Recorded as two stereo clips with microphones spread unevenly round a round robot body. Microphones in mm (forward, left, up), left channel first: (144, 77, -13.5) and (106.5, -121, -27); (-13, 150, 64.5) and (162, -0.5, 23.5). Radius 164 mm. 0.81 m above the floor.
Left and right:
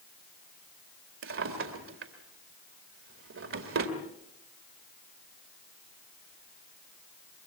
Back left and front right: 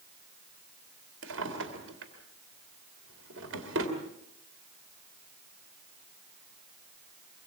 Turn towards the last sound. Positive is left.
turn(degrees=-90)